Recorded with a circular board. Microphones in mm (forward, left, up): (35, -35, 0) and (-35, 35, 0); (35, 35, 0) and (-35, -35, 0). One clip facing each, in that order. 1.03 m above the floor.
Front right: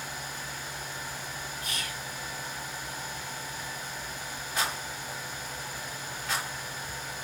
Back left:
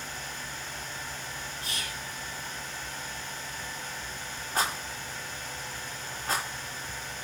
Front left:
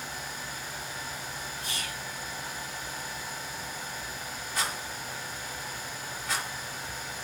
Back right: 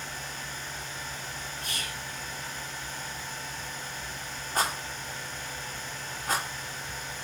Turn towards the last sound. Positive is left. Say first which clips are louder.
# back left 2 dB, back right 5 dB
turn(degrees=-175)